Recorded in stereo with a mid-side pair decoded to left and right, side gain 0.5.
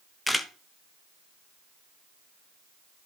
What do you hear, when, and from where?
0.3 s a camera shutter: 10° left, 0.9 m